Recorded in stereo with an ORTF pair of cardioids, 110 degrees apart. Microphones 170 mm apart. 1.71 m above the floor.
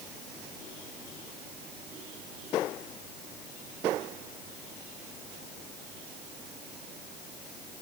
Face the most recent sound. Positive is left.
No sound to turn to.